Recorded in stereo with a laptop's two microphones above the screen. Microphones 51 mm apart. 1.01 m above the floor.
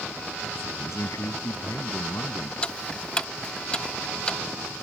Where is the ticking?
20° left (ahead or behind).